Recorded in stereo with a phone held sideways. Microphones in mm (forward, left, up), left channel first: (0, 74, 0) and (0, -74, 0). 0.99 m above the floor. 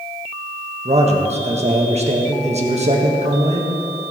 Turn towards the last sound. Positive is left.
turn(degrees=-50)  # may be behind; listen again after turning